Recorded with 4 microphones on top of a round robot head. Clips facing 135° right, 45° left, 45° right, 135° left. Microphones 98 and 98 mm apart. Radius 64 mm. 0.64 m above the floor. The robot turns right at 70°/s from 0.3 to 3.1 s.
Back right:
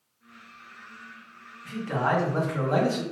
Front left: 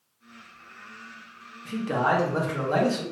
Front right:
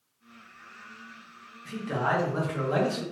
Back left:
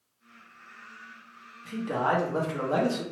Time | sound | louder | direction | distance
1.6 | a man speaking | front left 2 dB, back left 1 dB | 70° left | 1.1 m